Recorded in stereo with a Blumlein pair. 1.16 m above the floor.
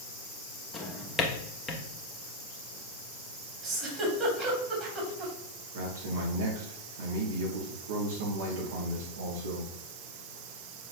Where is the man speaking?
55° right, 3 m.